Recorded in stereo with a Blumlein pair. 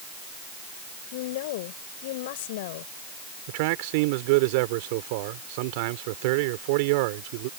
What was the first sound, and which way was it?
A woman speaking, 50° left.